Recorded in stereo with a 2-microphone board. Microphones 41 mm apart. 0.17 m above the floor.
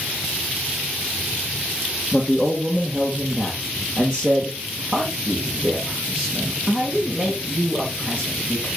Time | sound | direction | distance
2.1 | a man speaking | 20° right (ahead or behind) | 3 m